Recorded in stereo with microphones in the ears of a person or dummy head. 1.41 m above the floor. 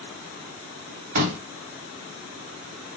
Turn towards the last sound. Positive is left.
turn(degrees=-50)  # may be behind; listen again after turning